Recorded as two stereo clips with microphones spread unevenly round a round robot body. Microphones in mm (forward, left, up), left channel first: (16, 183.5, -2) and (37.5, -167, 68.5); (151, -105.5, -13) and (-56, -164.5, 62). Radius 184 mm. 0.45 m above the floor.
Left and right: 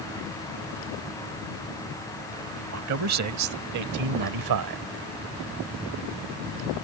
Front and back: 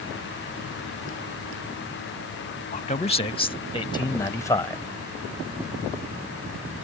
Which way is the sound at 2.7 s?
35° right.